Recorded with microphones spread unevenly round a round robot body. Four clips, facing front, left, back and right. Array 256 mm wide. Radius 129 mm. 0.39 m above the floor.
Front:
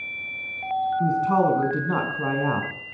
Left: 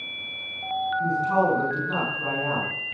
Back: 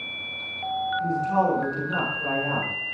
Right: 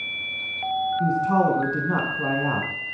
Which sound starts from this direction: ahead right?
A man speaking, at 1.0 s.